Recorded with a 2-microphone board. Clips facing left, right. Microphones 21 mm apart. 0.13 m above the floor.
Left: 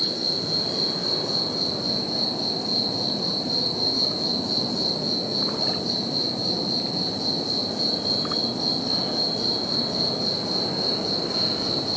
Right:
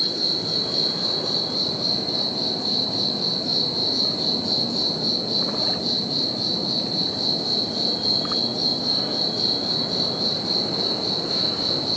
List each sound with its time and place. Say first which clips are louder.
0.0 s an insect: right 2 dB; 60° right (ahead or behind), 1.8 m